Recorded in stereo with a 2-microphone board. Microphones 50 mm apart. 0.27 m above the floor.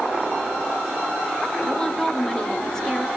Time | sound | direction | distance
1.7 | a woman speaking | 10° left (ahead or behind) | 3.5 m